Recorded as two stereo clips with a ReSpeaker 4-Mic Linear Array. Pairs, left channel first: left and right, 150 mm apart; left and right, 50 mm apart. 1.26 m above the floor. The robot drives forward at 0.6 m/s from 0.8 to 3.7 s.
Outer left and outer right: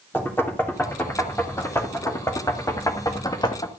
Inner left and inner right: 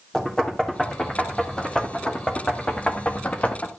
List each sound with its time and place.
0.1 s knocking: 15° left (ahead or behind), 3.5 m; by 3.7 s 30° left (ahead or behind), 1.7 m